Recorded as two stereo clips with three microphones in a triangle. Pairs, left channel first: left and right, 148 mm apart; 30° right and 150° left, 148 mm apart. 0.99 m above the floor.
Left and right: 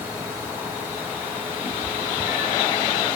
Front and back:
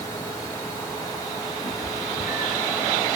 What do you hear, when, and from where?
1.6 s a cat meowing: 5° left, 3 m; by 2.7 s 20° right, 4 m